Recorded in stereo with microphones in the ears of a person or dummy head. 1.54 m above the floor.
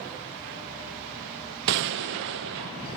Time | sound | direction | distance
1.7 | a gunshot | 65° right (ahead or behind) | 0.5 m